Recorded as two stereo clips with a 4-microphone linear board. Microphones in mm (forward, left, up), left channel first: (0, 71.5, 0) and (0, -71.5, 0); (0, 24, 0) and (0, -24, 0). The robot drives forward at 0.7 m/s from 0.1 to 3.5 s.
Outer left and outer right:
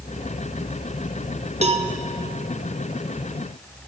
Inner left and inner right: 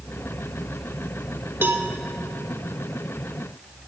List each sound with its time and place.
1.6 s a cowbell: 50° right (ahead or behind), 0.8 m; by 1.9 s 40° right (ahead or behind), 0.9 m